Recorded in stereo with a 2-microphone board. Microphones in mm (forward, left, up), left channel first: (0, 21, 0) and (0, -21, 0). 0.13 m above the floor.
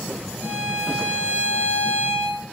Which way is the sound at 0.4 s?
45° right (ahead or behind).